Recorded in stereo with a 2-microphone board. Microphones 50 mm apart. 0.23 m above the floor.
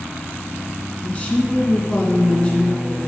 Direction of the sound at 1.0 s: 25° left (ahead or behind).